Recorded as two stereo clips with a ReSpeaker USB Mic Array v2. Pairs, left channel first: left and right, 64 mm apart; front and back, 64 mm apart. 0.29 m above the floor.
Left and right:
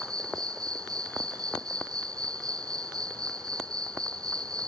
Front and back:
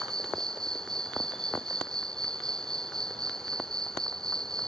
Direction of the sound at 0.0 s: 80° right.